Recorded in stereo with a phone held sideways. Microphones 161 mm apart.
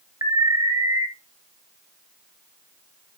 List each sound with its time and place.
0.2 s an alarm: 25° right (ahead or behind), 1.4 m